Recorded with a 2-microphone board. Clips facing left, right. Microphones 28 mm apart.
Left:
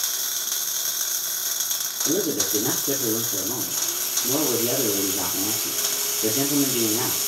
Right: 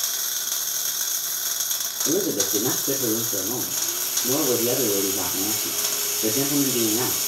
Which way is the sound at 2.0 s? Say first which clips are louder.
Right 1 dB; 5° left (ahead or behind).